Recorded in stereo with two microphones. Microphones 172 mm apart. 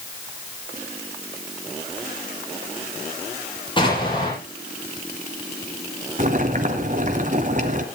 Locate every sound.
3.8 s an explosion: 30° left (ahead or behind), 8.5 m
6.2 s boiling: 50° right (ahead or behind), 1.9 m